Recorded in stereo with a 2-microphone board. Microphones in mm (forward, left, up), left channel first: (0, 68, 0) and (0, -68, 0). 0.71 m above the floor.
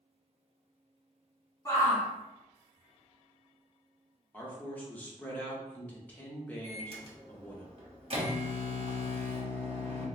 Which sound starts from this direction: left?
A shout, at 1.6 s.